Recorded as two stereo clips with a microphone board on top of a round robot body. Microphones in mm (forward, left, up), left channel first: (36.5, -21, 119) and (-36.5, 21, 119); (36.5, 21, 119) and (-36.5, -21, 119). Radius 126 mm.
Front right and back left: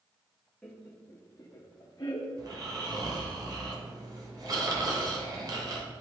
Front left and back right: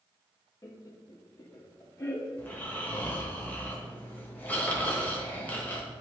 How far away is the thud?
I don't hear a thud.